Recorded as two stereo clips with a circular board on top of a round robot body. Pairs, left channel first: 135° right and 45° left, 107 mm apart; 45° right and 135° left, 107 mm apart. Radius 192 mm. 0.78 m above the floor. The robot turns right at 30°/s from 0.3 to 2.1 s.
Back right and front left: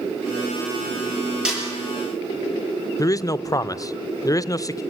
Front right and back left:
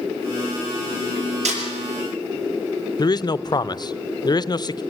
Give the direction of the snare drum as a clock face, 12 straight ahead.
8 o'clock.